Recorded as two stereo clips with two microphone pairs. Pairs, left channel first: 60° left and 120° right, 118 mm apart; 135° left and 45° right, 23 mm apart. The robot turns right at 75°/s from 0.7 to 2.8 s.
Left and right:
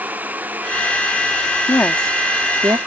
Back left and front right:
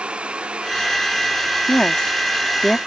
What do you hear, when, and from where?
1.7 s a woman speaking: 115° left; by 2.8 s 160° right